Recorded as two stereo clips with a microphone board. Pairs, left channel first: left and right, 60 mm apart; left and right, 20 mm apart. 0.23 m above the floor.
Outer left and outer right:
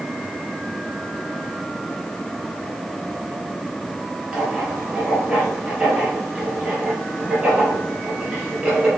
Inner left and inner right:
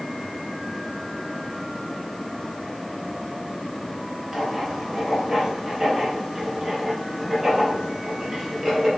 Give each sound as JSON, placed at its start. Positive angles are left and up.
{"t": 4.3, "sound": "writing", "side_deg": -15, "distance_m": 4.0}